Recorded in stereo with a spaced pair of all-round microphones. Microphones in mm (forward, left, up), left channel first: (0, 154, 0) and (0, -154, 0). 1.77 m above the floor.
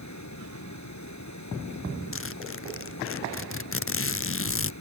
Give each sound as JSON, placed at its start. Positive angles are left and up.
{"t": 0.0, "sound": "running water", "side_deg": 65}
{"t": 2.1, "sound": "a zipper", "side_deg": 45}